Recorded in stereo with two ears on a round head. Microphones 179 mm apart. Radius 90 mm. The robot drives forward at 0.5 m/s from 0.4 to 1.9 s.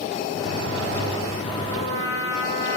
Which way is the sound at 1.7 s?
65° right (ahead or behind).